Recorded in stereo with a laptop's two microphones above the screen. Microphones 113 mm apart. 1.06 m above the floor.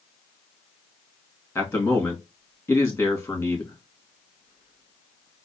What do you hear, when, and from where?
1.6 s a man speaking: 20° left (ahead or behind), 1.9 m